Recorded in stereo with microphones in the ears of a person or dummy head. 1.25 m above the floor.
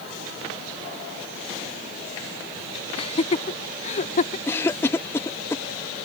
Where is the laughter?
35° left (ahead or behind); by 4.4 s 50° left (ahead or behind).